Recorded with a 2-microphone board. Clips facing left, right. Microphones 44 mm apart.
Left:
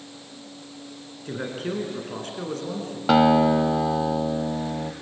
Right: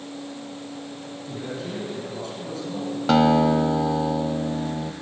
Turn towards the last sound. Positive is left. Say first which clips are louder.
# left 1 dB
turn(degrees=10)  # may be behind; listen again after turning